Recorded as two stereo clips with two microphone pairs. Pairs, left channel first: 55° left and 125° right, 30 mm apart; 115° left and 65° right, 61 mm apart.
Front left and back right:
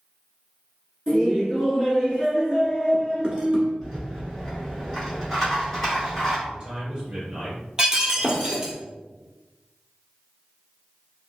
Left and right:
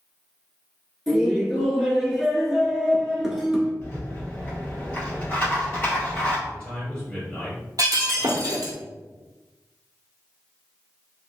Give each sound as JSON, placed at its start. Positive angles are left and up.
{"t": 1.1, "sound": "laughter", "azimuth_deg": -145, "distance_m": 1.2}
{"t": 3.8, "sound": "a rattle", "azimuth_deg": 130, "distance_m": 1.9}
{"t": 6.5, "sound": "a man speaking", "azimuth_deg": 170, "distance_m": 1.7}
{"t": 7.8, "sound": "breaking glass", "azimuth_deg": -65, "distance_m": 0.8}